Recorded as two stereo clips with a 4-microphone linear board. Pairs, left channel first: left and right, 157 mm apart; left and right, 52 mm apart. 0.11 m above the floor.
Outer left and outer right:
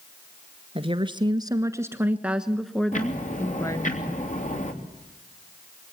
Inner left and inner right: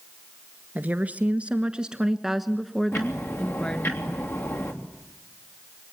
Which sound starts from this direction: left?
Ticking, at 2.9 s.